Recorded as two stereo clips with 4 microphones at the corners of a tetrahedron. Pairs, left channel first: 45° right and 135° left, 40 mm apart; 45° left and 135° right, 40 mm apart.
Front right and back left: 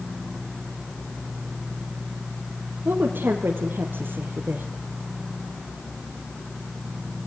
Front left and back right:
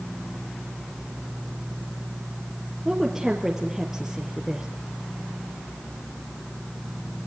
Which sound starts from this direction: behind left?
A woman speaking, at 2.9 s.